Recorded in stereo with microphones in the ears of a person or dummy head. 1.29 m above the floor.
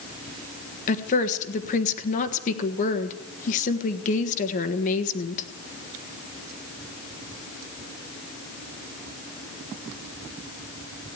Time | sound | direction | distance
0.9 | a woman speaking | 40° left (ahead or behind) | 1.4 m